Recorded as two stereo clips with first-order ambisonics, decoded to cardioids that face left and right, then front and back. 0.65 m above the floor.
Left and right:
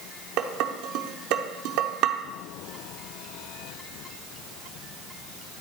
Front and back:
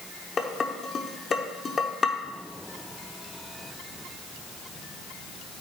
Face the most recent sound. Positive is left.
turn(degrees=-70)